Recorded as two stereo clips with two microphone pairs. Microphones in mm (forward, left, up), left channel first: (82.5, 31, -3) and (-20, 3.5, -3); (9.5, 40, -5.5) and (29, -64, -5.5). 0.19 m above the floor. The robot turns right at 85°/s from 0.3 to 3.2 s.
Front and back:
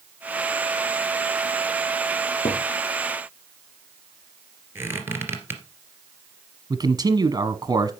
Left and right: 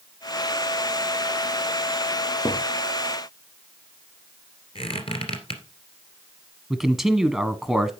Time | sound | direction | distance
2.5 | a thud | 45° left | 4.5 m
4.8 | a squeak | 130° left | 2.5 m
6.7 | a man speaking | 160° right | 1.1 m